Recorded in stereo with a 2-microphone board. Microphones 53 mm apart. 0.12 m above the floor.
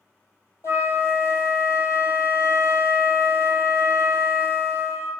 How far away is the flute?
About 0.6 m.